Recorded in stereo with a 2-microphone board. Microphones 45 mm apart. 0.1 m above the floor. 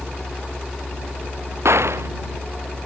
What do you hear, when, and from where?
1.6 s a gunshot: 80° right